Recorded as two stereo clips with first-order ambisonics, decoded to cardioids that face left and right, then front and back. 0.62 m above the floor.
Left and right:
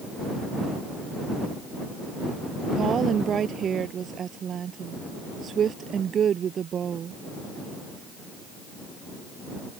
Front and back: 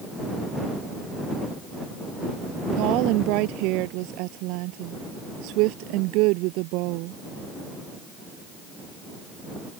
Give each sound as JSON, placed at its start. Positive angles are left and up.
{"t": 2.8, "sound": "a woman speaking", "azimuth_deg": -155}